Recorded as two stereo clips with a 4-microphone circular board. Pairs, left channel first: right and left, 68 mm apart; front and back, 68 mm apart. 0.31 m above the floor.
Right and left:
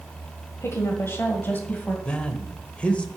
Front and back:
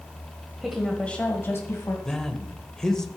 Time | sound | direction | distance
0.6 | a woman speaking | 95° right | 1.4 m
2.0 | a man speaking | 65° right | 0.9 m